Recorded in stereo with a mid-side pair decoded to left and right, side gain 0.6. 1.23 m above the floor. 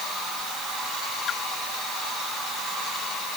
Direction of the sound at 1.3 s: 50° left.